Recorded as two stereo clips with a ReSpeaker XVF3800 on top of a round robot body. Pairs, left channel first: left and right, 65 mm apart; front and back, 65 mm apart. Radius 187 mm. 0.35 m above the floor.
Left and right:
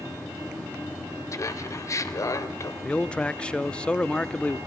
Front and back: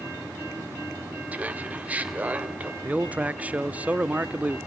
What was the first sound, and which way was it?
Laughter, 115° left.